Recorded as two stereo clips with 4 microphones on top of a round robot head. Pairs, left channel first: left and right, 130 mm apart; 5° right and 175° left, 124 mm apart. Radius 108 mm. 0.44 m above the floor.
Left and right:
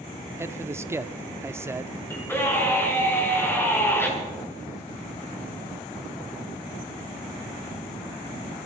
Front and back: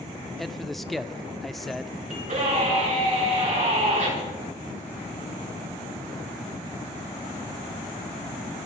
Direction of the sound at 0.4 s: 90° right.